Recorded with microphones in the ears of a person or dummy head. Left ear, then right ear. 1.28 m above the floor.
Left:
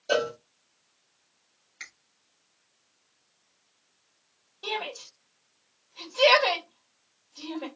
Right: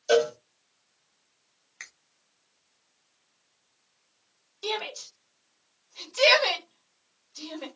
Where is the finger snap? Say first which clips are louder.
Left 1 dB; 30° right (ahead or behind), 1.2 m.